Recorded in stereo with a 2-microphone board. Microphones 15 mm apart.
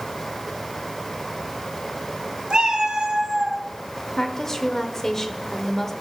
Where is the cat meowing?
80° right, 1.8 m; by 3.6 s 30° right (ahead or behind), 1.4 m.